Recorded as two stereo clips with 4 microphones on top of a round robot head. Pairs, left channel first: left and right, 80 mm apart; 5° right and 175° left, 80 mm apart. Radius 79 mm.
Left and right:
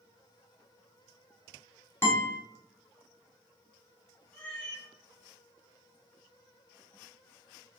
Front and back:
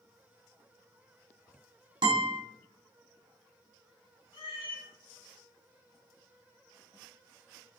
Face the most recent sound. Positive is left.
turn(degrees=10)